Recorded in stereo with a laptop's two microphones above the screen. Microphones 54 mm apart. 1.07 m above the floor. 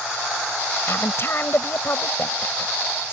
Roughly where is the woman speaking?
Left.